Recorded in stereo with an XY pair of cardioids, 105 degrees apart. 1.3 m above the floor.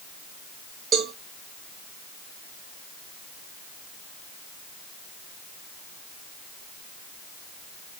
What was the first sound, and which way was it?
A cowbell, 60° right.